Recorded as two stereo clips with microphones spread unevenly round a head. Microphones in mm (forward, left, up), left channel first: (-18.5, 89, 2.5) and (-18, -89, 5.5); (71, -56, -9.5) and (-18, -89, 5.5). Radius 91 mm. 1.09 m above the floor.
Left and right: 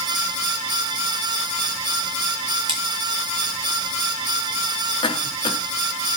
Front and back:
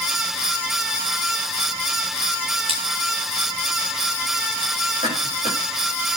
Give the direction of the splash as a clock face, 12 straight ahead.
5 o'clock.